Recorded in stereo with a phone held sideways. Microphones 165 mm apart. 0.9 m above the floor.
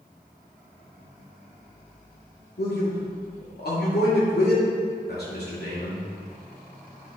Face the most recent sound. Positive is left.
turn(degrees=80)